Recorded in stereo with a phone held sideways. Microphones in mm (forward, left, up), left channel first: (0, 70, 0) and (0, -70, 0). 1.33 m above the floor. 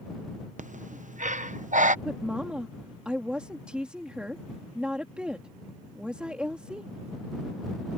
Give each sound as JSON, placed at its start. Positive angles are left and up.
{"t": 0.6, "sound": "breathing", "side_deg": -65}
{"t": 2.0, "sound": "a woman speaking", "side_deg": -5}